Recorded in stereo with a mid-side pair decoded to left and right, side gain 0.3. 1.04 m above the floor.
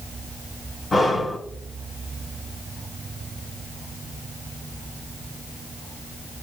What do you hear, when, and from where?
0.9 s breathing: 45° left, 1.5 m